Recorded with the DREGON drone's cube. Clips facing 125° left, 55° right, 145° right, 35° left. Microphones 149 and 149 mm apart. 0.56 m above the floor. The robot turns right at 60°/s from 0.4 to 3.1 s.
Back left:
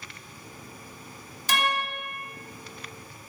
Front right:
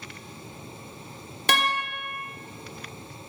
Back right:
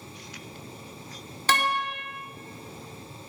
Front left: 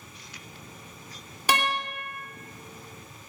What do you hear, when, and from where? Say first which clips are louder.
1.5 s a guitar: front right 1 dB, back right 1 dB; 45° right, 0.7 m; by 1.9 s 15° right, 0.7 m